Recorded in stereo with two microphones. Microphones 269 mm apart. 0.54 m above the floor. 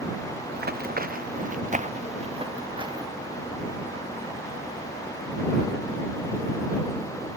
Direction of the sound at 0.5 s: 35° right (ahead or behind).